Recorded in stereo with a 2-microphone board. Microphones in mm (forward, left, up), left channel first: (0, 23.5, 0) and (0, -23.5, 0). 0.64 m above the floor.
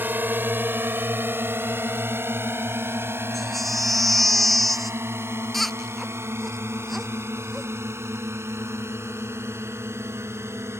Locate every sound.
0.0 s a drone: 45° right (ahead or behind); by 10.8 s 70° right (ahead or behind)
3.3 s a baby crying: 5° left (ahead or behind)